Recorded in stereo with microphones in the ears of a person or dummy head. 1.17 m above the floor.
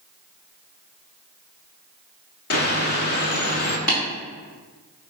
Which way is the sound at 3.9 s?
60° left (ahead or behind).